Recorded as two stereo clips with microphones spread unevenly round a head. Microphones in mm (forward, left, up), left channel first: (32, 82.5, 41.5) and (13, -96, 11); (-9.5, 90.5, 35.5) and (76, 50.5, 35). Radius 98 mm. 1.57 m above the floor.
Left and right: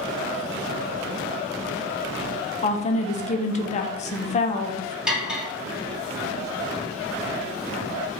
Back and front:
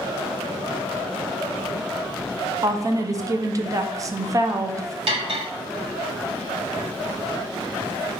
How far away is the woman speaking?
About 0.7 m.